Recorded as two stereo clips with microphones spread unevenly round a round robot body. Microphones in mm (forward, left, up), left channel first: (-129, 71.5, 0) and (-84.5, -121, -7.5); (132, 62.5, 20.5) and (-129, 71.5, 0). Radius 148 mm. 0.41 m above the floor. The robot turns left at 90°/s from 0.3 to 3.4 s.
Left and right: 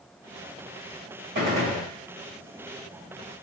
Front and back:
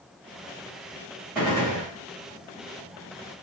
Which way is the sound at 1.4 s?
95° right.